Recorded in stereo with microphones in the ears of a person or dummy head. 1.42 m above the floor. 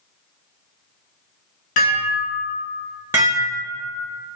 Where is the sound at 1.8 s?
50° left (ahead or behind), 1.1 m.